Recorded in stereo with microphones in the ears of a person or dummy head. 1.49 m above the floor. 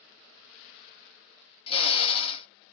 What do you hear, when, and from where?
1.7 s a drill: 35° left (ahead or behind), 0.6 m